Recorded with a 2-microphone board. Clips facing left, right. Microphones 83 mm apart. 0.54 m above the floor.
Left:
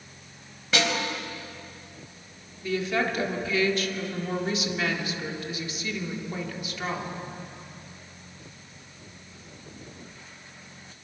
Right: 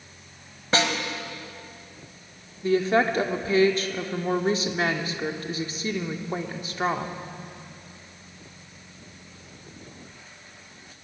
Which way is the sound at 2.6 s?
35° right (ahead or behind).